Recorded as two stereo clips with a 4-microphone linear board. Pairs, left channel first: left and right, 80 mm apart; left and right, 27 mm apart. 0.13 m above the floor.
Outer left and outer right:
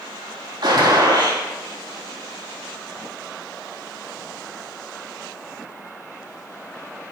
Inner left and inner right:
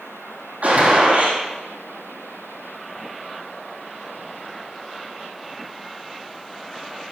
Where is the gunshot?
70° right (ahead or behind), 4.5 m.